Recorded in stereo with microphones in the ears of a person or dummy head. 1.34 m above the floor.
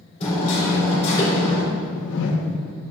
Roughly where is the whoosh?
Left.